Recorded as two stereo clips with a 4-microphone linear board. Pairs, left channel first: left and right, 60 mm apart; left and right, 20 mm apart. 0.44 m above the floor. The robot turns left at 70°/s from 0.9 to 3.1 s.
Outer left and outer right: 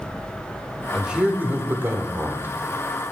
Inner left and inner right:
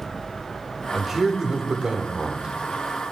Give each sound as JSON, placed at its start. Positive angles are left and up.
{"t": 0.9, "sound": "a man speaking", "azimuth_deg": -15, "distance_m": 1.0}